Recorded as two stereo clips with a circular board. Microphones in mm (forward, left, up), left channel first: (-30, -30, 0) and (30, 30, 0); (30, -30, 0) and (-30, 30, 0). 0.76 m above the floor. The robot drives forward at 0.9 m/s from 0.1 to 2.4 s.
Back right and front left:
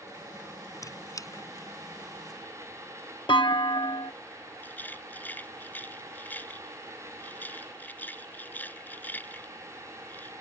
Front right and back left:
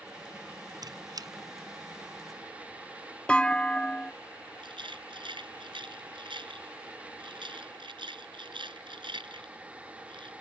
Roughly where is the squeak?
Behind.